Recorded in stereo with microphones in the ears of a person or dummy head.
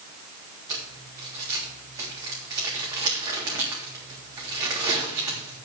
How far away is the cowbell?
No cowbell in this recording.